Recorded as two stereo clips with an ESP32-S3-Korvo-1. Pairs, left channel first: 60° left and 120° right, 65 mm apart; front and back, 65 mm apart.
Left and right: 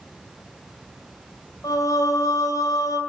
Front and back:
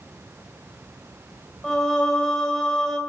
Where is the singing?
80° left, 3 m.